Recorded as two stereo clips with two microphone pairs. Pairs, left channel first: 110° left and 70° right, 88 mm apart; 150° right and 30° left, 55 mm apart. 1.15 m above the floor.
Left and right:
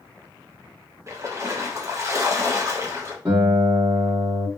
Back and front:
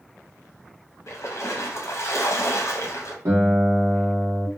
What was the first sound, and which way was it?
A splash, 125° right.